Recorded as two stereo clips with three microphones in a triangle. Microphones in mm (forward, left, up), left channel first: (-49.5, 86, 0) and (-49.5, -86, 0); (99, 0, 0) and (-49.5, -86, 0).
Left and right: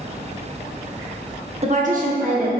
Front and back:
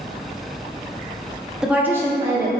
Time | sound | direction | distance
1.6 | a woman speaking | 65° right | 0.7 m